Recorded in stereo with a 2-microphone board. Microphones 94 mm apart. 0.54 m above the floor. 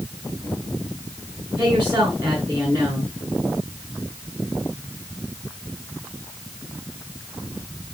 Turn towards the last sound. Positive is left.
turn(degrees=-50)  # may be behind; listen again after turning